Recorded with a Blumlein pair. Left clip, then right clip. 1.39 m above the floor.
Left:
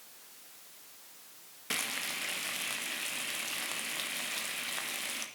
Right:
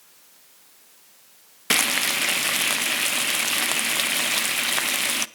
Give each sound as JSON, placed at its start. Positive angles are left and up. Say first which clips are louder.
{"t": 1.7, "sound": "frying", "louder": "right 14 dB", "azimuth_deg": -35, "distance_m": 0.5}